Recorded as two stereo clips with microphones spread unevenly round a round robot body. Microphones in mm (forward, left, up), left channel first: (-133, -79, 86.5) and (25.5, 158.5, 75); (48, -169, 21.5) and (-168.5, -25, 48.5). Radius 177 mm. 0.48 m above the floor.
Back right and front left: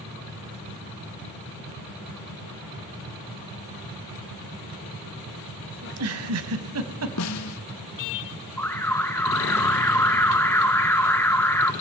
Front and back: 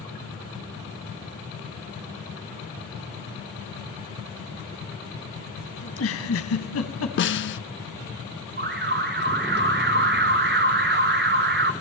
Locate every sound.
5.8 s a giggle: 15° left, 1.7 m
7.2 s a snare drum: 80° right, 0.9 m
8.6 s an alarm: 155° left, 1.7 m